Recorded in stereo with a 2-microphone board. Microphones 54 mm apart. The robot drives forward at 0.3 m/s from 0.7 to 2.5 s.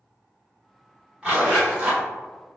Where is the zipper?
20° right (ahead or behind), 1.2 m.